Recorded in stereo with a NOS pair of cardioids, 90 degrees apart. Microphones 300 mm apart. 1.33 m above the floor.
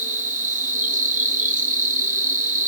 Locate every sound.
0.0 s an insect: 25° right, 1.7 m